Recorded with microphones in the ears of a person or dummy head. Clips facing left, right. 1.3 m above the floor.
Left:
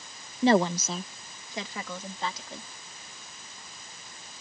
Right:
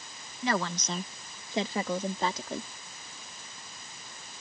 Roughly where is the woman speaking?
Left.